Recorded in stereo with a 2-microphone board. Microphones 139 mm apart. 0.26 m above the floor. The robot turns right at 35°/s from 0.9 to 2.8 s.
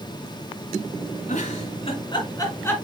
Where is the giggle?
60° left (ahead or behind), 2.5 m; by 2.7 s 15° left (ahead or behind), 2.5 m.